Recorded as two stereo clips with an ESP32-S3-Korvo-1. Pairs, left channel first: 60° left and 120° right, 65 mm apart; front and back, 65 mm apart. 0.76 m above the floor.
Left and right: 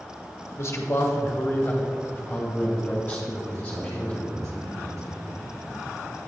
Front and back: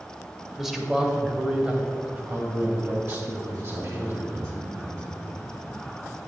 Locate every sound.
0.6 s a man speaking: 95° left, 1.3 m; by 4.5 s 130° left, 4.5 m
3.5 s a man speaking: 155° right, 3.5 m